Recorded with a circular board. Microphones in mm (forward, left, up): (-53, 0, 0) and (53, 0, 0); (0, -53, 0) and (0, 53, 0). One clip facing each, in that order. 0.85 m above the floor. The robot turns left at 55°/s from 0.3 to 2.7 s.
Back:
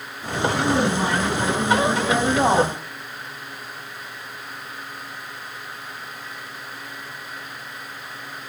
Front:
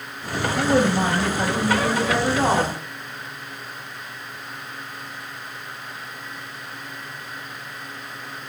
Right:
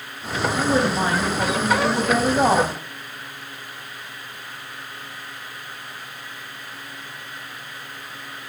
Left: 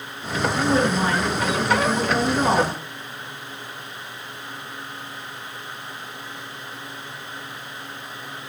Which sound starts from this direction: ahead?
A woman speaking, at 0.6 s.